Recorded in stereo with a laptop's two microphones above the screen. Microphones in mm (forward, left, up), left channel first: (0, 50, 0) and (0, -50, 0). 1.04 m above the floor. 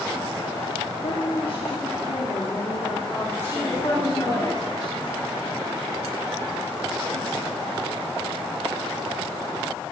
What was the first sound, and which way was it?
A woman speaking, 65° left (ahead or behind).